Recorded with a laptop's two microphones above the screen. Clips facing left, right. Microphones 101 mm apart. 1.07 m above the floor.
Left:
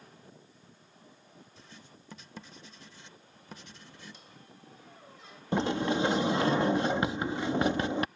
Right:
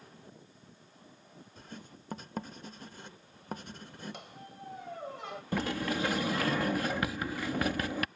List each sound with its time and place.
1.6 s writing: 50° right (ahead or behind)
4.1 s a squeak: 70° right (ahead or behind)
5.5 s a sliding door: 25° left (ahead or behind)